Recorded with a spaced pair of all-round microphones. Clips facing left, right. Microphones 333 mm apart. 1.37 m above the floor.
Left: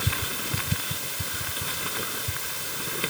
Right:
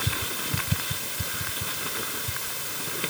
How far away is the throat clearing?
I don't hear throat clearing.